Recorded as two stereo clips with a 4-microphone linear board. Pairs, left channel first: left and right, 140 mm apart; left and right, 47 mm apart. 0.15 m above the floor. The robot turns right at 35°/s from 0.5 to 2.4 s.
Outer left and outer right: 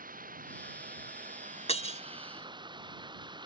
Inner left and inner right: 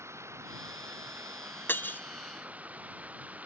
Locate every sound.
0.0 s running water: 100° right; by 3.5 s 35° right
1.7 s breaking glass: 50° left (ahead or behind); by 2.0 s 45° left (ahead or behind)